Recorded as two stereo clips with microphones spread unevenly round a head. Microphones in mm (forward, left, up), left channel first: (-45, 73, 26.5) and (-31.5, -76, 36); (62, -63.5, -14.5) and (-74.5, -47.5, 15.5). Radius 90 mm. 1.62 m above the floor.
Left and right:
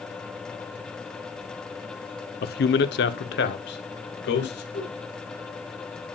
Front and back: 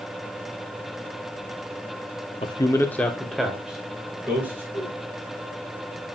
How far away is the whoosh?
About 6.5 m.